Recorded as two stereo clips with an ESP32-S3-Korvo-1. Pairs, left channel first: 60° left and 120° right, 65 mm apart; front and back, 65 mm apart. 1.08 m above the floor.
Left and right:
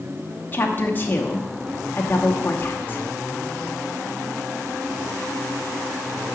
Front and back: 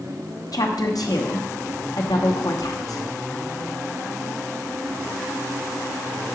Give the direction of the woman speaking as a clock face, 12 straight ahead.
12 o'clock.